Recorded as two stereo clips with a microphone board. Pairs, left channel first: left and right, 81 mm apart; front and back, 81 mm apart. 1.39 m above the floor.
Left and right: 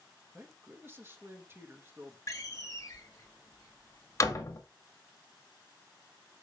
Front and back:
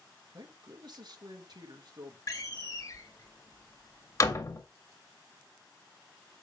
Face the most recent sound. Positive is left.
turn(degrees=45)